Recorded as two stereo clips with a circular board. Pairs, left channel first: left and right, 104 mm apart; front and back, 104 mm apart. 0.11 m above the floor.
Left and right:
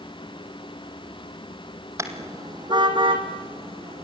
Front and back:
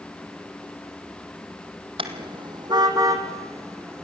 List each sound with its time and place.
2.0 s a car horn: 150° right, 2.5 m; by 4.0 s 115° right, 4 m